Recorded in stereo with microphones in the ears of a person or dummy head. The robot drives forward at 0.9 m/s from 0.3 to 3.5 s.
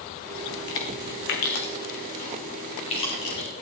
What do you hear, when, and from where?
0.5 s chewing: 75° left (ahead or behind), 1.8 m; by 3.6 s 30° left (ahead or behind), 3.5 m